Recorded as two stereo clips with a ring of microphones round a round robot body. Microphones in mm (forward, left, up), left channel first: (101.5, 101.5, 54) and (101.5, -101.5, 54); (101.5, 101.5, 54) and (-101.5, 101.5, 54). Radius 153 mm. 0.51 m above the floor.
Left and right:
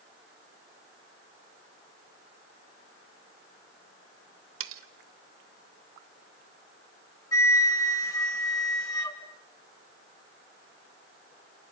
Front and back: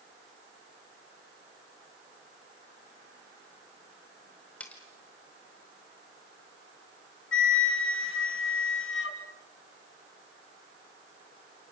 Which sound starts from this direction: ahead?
A flute, at 7.3 s.